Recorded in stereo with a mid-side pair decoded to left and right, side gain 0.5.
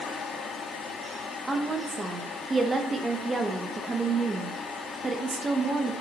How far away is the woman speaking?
About 1.0 m.